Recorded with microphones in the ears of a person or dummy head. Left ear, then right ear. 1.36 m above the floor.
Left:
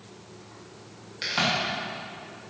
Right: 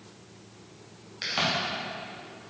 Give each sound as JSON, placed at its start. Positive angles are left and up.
{"t": 1.2, "sound": "a crack", "side_deg": 0, "distance_m": 1.8}